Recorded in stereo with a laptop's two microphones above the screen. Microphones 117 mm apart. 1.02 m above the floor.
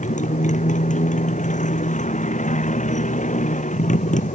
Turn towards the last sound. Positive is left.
turn(degrees=85)